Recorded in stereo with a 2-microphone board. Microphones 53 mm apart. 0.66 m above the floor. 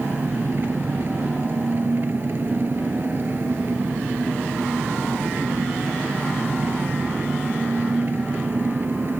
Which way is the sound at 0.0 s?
45° right (ahead or behind).